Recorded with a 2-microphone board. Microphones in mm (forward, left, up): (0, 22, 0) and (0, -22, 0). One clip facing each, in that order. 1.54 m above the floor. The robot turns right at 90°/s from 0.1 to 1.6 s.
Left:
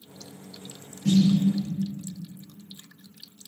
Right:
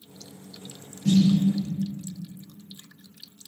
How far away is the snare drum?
About 1.1 m.